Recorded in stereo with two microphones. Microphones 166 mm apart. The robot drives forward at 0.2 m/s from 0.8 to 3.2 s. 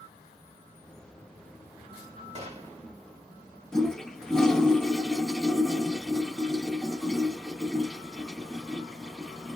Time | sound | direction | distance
2.4 | a gunshot | 40° right (ahead or behind) | 0.9 m
3.7 | a toilet flushing | 5° left (ahead or behind) | 0.7 m